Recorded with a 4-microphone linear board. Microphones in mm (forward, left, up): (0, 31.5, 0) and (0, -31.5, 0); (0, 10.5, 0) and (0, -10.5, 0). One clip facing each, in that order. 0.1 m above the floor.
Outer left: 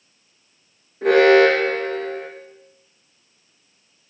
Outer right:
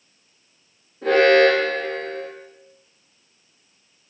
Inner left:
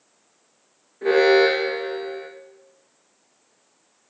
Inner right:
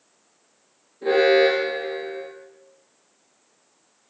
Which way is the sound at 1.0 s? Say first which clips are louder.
Outer left 2 dB, inner left 1 dB; 80° left.